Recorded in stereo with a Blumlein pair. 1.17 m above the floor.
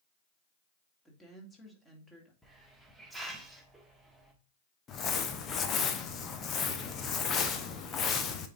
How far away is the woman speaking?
About 2.5 m.